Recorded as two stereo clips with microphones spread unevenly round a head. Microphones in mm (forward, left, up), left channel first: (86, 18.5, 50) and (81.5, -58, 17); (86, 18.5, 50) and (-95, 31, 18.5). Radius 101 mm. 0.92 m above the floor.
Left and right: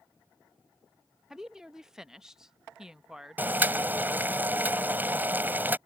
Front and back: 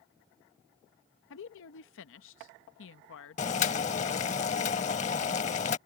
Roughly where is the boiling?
Ahead.